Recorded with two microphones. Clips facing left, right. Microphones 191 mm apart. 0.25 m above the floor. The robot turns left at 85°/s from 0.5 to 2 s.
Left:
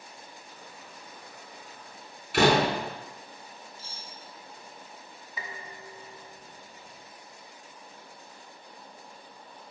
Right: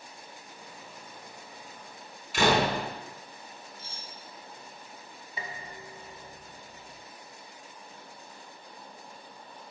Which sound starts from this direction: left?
A door slam, at 2.3 s.